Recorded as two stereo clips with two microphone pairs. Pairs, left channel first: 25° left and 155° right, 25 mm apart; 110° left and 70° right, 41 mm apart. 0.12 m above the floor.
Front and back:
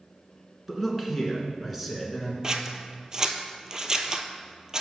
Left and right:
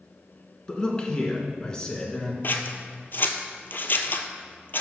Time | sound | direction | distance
0.7 | a man speaking | 135° left | 1.4 m
2.4 | scissors | 145° left | 0.7 m